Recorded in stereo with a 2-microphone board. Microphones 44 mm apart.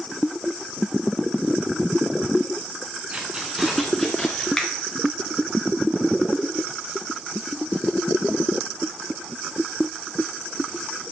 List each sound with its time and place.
3.1 s keys jangling: 30° right (ahead or behind), 1.4 m; by 4.5 s 15° left (ahead or behind), 1.7 m
4.6 s a finger snap: 15° left (ahead or behind), 1.0 m